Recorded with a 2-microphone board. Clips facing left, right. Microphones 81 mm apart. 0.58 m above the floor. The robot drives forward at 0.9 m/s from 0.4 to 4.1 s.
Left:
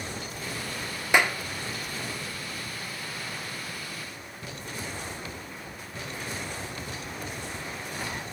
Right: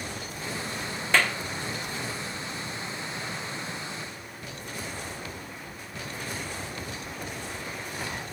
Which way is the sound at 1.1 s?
20° left (ahead or behind).